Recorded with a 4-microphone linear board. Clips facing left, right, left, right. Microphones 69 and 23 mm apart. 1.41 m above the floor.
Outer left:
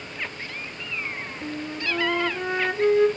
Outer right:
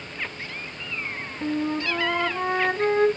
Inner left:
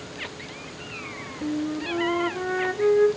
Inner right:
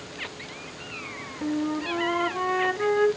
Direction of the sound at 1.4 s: 50° right (ahead or behind).